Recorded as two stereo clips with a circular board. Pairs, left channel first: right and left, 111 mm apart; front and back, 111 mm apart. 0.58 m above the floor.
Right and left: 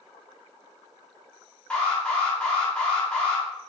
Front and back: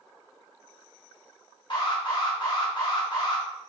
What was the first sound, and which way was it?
An alarm, 15° right.